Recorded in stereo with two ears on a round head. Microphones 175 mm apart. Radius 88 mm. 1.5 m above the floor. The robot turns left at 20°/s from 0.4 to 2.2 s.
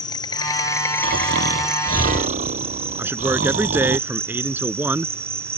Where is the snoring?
65° right (ahead or behind); by 4.0 s 40° right (ahead or behind).